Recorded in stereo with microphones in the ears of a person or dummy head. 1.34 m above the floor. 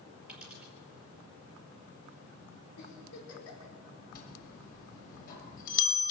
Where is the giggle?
85° left, 5 m.